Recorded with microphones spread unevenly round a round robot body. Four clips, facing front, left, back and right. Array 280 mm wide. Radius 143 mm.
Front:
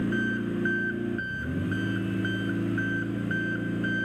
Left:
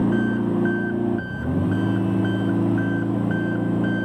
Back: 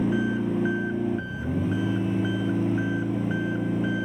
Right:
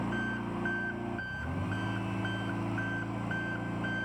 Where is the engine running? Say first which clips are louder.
Left 14 dB, back 3 dB; 105° left.